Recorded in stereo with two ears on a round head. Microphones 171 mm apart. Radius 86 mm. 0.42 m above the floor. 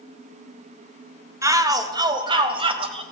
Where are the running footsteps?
I don't hear running footsteps.